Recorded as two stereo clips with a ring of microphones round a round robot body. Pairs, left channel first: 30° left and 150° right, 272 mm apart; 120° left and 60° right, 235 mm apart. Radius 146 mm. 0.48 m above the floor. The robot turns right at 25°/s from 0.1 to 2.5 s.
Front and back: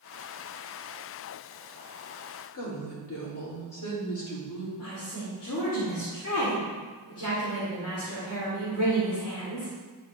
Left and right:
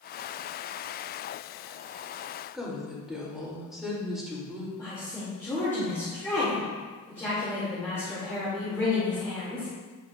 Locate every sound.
2.5 s a woman speaking: 30° left, 2.0 m
4.8 s a woman speaking: 40° left, 1.9 m